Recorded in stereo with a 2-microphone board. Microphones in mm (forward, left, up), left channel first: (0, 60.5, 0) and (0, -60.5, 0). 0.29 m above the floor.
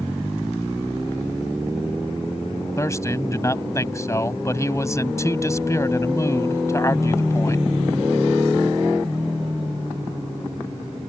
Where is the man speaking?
25° left (ahead or behind).